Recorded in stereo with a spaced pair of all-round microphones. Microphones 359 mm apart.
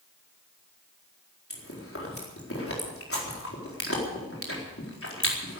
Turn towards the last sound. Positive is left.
turn(degrees=35)  # may be behind; listen again after turning